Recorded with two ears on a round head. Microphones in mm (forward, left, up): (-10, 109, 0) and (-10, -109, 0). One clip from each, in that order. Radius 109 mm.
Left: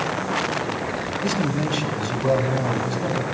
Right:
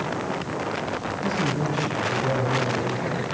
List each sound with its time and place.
1.2 s a man speaking: 70° left (ahead or behind), 3.5 m